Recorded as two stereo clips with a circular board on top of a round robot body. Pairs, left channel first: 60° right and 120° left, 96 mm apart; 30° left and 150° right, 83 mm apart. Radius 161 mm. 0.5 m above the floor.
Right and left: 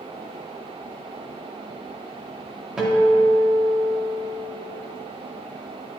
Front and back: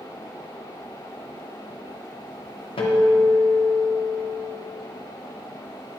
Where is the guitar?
35° left, 0.6 m.